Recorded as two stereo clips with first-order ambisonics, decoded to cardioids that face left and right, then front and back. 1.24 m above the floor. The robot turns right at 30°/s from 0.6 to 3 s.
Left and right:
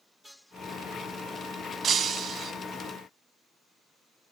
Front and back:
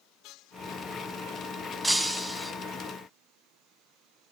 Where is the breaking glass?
90° right, 1.2 m; by 2.5 s 70° right, 1.2 m.